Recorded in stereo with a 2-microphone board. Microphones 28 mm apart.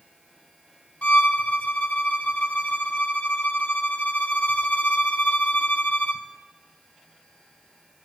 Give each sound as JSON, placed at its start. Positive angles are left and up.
{"t": 1.0, "sound": "a violin", "side_deg": 65, "distance_m": 0.6}